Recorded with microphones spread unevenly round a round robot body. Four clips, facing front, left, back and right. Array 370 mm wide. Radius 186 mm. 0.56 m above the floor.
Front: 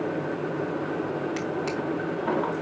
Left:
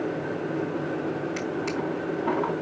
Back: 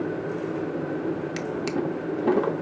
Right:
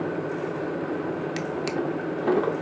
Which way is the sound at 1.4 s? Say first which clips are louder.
Right 1 dB, back 1 dB; 160° right.